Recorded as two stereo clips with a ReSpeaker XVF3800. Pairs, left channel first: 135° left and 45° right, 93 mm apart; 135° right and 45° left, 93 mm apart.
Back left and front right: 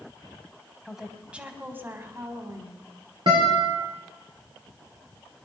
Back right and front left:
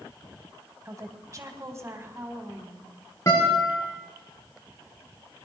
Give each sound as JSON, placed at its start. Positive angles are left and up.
{"t": 0.8, "sound": "a woman speaking", "azimuth_deg": 40, "distance_m": 1.6}
{"t": 3.3, "sound": "a guitar", "azimuth_deg": -80, "distance_m": 6.5}